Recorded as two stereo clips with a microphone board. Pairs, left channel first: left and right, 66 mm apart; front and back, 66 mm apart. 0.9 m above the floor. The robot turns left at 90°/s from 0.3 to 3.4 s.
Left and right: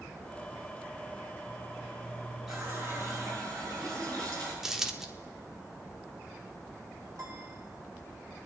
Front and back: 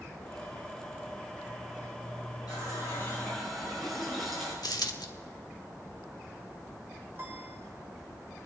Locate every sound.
2.5 s a running tap: 5° right, 7.5 m; by 4.5 s 90° right, 7.5 m
4.6 s a dropped coin: 5° right, 1.1 m
7.2 s a piano: 125° right, 3.5 m